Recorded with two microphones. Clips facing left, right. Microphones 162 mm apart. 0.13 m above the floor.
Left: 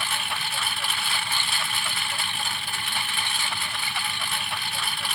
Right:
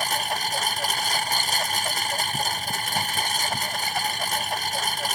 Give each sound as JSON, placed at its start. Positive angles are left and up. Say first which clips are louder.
{"t": 0.0, "sound": "a lawn mower", "louder": "right 5 dB", "side_deg": -40}